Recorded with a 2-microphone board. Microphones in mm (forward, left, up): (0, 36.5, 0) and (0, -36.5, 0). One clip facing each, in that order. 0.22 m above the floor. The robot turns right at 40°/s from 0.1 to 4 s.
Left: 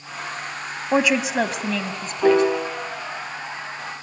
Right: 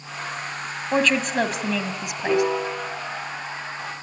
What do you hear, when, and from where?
0.9 s a woman speaking: 15° left (ahead or behind), 1.2 m; by 2.4 s 20° right (ahead or behind), 1.2 m
2.2 s a piano: 80° left, 9 m; by 2.8 s 75° left (ahead or behind), 9 m